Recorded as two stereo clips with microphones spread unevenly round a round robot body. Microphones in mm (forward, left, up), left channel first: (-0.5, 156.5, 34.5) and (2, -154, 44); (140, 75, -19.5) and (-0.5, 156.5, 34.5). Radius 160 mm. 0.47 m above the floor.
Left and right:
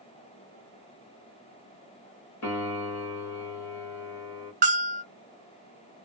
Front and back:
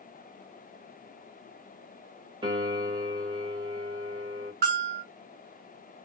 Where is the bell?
155° right, 0.7 m.